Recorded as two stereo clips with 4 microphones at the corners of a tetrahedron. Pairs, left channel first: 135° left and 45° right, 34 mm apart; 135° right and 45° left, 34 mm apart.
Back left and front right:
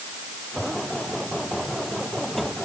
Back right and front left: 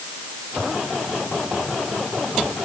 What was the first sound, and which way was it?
Only background noise.